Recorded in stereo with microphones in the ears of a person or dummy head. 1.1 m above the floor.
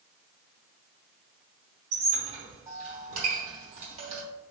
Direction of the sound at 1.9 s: 35° right (ahead or behind).